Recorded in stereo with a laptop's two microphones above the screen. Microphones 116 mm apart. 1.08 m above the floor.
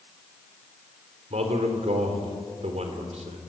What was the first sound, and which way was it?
A man speaking, 75° right (ahead or behind).